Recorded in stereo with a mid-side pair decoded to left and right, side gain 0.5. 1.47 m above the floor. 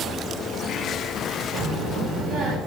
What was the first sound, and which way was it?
A child speaking, 70° right.